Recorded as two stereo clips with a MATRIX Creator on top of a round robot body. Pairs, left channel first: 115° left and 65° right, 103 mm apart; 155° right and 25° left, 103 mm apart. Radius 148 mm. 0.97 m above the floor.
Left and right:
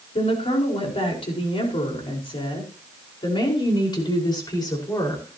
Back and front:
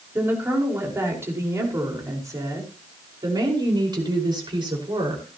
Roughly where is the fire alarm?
I don't hear a fire alarm.